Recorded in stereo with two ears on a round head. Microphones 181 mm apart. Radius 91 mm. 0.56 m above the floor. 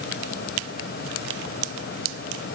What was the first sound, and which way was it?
Only background noise.